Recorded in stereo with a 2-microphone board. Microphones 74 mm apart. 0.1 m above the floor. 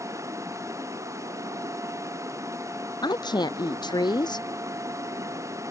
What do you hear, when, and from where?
0.0 s running water: 40° right (ahead or behind)
3.0 s a woman speaking: 70° left (ahead or behind)